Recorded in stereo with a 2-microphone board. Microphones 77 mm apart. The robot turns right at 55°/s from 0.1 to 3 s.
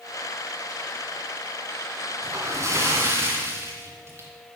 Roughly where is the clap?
I don't hear a clap.